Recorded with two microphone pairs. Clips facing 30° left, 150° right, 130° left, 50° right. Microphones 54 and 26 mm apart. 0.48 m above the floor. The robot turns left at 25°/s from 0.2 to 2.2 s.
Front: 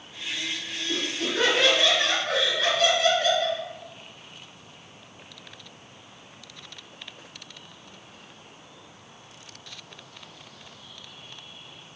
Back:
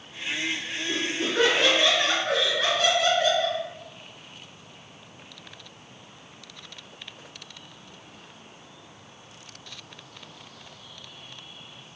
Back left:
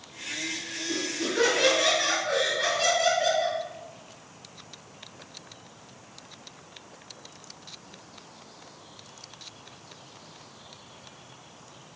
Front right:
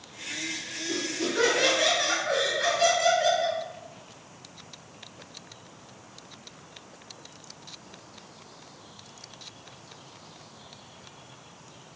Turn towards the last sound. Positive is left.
turn(degrees=-160)